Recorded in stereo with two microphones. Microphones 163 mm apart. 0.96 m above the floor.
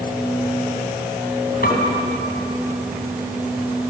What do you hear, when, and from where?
1.6 s a piano: 60° left (ahead or behind), 6 m